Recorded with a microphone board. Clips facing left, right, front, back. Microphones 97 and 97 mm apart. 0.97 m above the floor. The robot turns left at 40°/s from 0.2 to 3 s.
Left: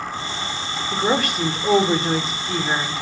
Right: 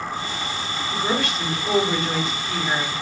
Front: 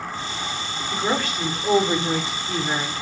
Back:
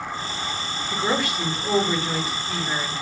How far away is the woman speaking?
About 0.6 m.